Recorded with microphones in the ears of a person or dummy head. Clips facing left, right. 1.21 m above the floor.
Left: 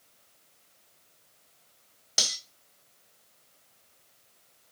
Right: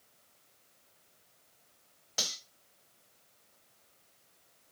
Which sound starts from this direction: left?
Cutlery clinking, at 2.2 s.